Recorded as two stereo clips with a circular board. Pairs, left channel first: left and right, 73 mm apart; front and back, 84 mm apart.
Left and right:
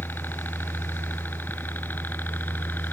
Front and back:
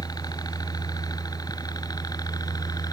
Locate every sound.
0.0 s a helicopter: 30° left